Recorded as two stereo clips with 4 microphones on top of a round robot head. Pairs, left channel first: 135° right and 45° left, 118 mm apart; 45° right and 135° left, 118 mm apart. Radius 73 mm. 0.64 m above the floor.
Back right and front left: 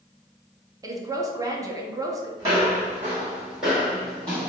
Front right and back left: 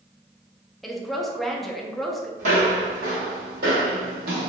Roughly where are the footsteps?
Left.